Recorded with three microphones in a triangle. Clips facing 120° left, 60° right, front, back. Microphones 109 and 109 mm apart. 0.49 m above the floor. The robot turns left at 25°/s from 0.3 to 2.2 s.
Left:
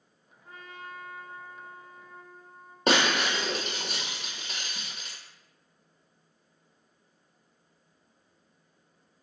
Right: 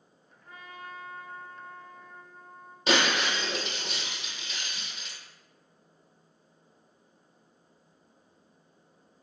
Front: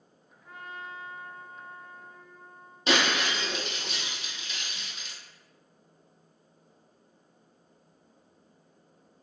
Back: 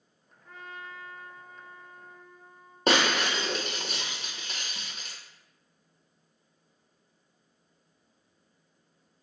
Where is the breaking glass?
145° left, 0.9 m.